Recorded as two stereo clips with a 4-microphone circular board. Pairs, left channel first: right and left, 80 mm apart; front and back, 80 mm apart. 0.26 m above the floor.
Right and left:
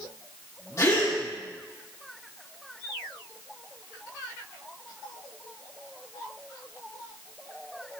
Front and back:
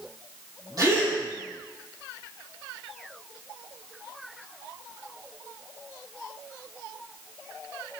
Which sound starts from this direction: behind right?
A gasp, at 0.8 s.